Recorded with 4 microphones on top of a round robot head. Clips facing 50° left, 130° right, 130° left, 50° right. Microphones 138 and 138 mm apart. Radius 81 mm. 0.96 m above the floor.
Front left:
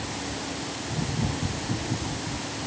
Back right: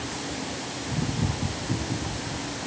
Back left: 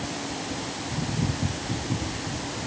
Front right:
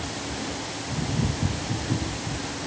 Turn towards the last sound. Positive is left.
No sound to turn to.